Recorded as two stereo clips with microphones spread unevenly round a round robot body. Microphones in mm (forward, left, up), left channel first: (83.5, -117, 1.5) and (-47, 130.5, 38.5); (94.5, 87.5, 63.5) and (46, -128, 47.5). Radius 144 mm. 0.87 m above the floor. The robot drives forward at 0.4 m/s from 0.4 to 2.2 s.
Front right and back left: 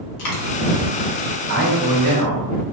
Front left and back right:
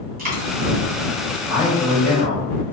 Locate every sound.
0.2 s a dropped coin: 55° right, 1.1 m
1.5 s a man speaking: 170° left, 1.2 m